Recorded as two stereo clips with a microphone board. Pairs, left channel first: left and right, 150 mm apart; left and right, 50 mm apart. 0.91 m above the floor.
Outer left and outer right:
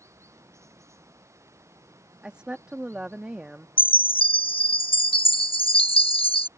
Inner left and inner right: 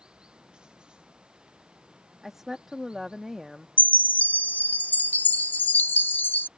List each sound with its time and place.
0.0 s running water: 20° right (ahead or behind)
2.2 s a woman speaking: 10° right (ahead or behind)
3.8 s a chime: 35° left (ahead or behind)